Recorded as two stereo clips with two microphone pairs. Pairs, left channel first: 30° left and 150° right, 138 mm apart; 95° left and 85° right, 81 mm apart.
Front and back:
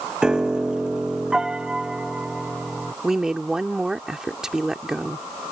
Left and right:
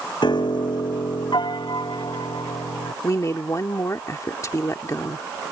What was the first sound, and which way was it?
A piano, 125° left.